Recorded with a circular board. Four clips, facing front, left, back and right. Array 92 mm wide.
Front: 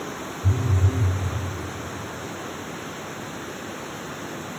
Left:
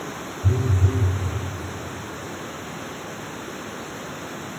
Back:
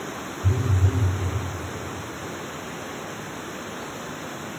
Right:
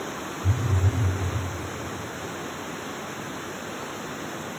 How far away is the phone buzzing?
About 5 m.